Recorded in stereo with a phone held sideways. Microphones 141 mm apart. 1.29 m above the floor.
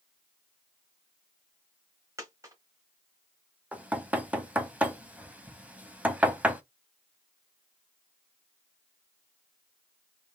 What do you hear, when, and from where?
2.2 s a dropped coin: 20° right (ahead or behind), 1.1 m
3.7 s knocking: 10° right (ahead or behind), 0.6 m